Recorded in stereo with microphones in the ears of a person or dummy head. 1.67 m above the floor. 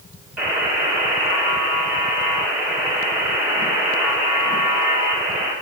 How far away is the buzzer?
About 2 m.